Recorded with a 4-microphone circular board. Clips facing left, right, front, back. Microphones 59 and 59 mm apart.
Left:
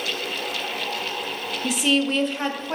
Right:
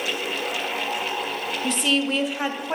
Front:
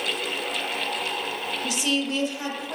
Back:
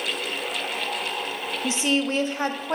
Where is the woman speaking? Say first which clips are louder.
Left 2 dB, back 3 dB; 160° left, 1.0 m; by 2.8 s 165° right, 1.5 m.